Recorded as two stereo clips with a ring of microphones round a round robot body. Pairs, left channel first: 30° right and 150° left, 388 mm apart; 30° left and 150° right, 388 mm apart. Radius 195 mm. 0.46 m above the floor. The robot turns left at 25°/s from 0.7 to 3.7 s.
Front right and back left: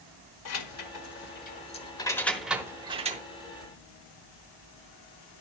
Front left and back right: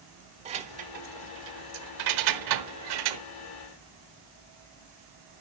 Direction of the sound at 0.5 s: 75° right.